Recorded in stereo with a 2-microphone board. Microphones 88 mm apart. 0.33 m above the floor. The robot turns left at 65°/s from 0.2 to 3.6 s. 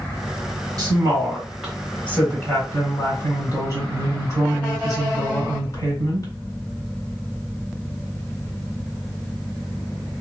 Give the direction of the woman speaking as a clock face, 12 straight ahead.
4 o'clock.